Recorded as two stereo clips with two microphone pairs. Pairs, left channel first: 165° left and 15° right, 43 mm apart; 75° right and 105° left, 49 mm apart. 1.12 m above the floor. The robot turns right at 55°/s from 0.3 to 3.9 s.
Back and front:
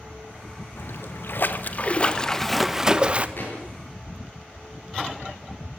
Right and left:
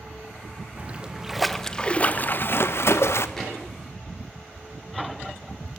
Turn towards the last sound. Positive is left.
turn(degrees=-125)